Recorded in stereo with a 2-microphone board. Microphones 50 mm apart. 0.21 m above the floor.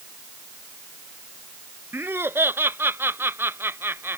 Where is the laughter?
50° right (ahead or behind).